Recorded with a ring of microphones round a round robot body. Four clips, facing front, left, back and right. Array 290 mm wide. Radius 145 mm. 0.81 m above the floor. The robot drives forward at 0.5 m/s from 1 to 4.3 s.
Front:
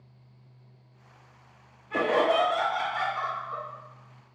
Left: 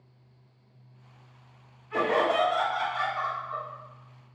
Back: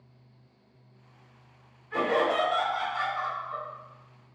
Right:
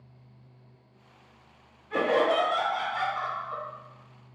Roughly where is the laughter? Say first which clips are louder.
Right 1 dB, front 2 dB; ahead right.